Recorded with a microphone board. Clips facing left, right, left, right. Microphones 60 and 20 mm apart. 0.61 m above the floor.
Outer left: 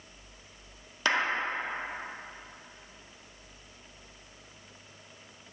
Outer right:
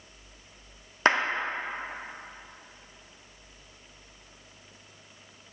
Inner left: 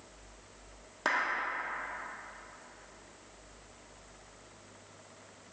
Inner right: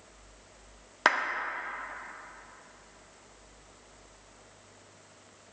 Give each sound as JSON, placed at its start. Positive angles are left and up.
{"t": 1.1, "sound": "a clap", "side_deg": -40, "distance_m": 0.8}